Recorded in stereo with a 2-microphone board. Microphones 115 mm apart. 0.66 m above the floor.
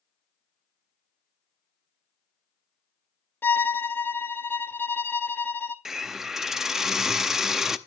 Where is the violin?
15° left (ahead or behind), 0.6 m.